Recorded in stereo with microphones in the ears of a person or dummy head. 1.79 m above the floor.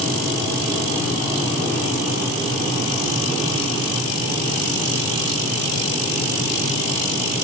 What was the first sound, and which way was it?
Only background noise.